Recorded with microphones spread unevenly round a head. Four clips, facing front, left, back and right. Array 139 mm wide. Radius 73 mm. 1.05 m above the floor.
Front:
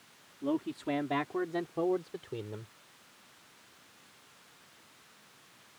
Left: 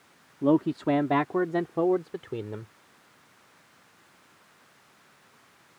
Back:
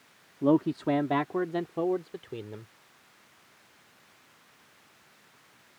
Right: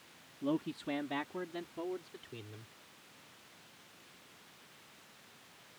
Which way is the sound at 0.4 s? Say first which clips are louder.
Left 13 dB, back 9 dB; 130° left.